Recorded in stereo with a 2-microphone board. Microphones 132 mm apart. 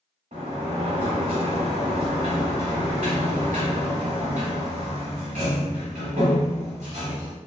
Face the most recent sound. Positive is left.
turn(degrees=-75)  # may be behind; listen again after turning